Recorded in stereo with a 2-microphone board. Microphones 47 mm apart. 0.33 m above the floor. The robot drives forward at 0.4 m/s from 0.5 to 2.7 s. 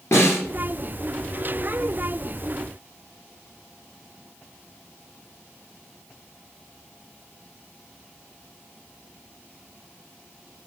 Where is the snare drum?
65° left (ahead or behind), 2.5 m.